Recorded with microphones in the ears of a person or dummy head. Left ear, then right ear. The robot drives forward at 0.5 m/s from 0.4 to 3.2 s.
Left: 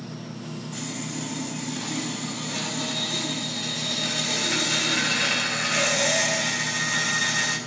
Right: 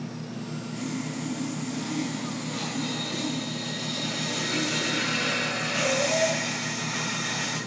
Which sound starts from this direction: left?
Sawing, at 0.7 s.